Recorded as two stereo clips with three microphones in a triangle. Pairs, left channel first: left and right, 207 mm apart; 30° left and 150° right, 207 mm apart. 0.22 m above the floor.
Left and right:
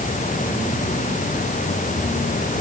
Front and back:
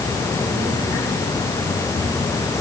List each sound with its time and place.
Only background noise.